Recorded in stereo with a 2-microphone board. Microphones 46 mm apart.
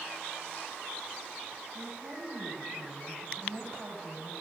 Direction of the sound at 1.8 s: 60° right (ahead or behind).